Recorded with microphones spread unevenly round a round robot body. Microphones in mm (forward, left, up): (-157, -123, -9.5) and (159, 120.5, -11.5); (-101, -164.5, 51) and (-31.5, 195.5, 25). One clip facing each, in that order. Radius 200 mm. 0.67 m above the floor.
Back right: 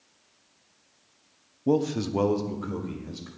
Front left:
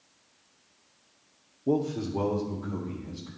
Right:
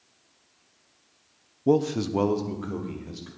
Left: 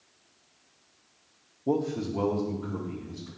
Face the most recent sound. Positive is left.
turn(degrees=-115)